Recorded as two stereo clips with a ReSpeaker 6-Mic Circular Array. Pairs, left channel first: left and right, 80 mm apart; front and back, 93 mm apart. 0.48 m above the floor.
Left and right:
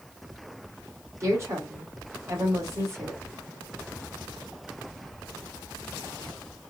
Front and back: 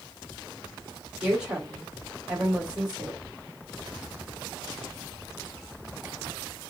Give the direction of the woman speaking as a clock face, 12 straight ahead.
4 o'clock.